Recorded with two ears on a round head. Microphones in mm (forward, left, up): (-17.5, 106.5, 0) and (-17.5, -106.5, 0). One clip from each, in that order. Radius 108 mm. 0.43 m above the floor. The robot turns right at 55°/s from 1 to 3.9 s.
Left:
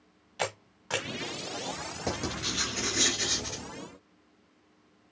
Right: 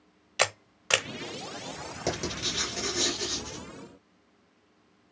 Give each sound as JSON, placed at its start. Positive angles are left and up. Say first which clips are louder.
{"t": 0.4, "sound": "a camera shutter", "louder": "right 6 dB", "side_deg": -55, "distance_m": 0.9}
{"t": 2.1, "sound": "writing", "louder": "right 2 dB", "azimuth_deg": -40, "distance_m": 3.0}